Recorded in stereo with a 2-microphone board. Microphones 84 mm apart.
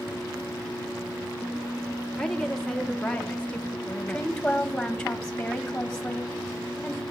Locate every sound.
2.2 s a woman speaking: 5° left (ahead or behind), 1.6 m; by 4.3 s 35° left (ahead or behind), 0.6 m
4.1 s a woman speaking: 5° left (ahead or behind), 1.2 m